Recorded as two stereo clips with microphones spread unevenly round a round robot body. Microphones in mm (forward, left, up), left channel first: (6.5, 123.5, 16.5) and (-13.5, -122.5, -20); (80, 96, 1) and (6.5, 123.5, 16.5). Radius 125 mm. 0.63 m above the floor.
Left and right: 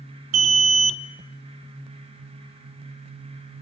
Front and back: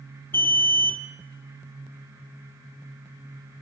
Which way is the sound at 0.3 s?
85° right.